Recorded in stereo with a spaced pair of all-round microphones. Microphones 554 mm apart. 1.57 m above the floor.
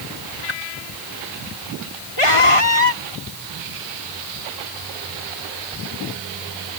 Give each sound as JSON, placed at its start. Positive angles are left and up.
{"t": 0.5, "sound": "a whoosh", "side_deg": 55}
{"t": 2.2, "sound": "a scream", "side_deg": 65}